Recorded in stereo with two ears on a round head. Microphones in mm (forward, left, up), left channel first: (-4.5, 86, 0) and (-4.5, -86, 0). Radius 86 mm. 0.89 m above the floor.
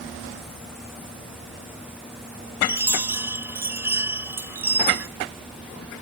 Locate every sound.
2.6 s a chime: 15° right (ahead or behind)